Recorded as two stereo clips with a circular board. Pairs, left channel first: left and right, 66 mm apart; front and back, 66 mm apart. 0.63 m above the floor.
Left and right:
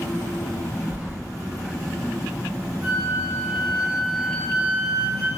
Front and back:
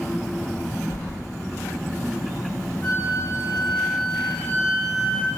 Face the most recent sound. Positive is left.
turn(degrees=-50)